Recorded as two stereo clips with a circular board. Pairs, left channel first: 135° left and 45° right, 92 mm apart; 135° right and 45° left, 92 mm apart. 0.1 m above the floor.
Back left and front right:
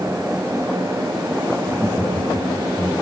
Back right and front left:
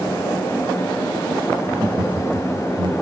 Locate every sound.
1.6 s laughter: 30° left, 3.5 m